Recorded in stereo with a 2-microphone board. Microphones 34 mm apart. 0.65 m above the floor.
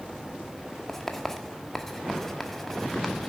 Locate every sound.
0.9 s writing: 10° left (ahead or behind), 1.4 m